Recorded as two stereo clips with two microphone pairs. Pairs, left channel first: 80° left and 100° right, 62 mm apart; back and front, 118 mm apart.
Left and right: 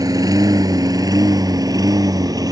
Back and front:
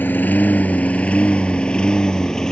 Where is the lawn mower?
110° right; by 2.5 s 95° right.